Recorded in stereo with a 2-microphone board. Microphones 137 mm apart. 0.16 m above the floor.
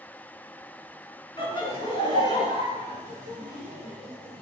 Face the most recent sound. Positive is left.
turn(degrees=35)  # may be behind; listen again after turning